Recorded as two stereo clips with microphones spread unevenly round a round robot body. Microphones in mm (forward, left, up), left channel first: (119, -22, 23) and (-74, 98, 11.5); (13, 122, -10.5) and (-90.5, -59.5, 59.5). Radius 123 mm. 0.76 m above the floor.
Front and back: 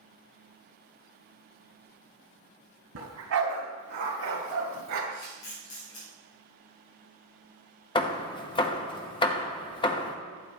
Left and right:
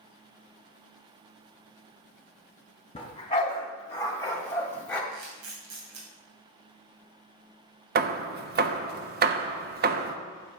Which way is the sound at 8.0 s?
85° right.